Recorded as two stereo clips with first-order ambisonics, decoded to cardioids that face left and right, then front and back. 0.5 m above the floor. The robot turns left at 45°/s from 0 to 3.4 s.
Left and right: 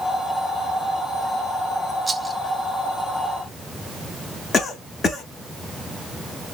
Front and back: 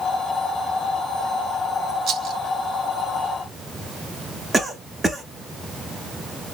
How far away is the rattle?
About 0.6 m.